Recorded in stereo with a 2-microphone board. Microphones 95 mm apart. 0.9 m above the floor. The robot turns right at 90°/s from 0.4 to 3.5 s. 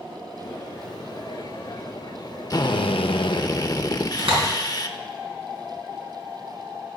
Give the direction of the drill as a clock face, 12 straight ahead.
11 o'clock.